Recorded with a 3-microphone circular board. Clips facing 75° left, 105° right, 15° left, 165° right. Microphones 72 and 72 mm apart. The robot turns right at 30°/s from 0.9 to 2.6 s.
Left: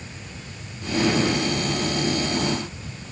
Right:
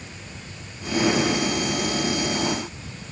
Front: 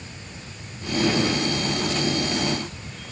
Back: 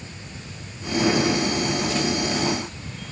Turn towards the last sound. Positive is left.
No sound to turn to.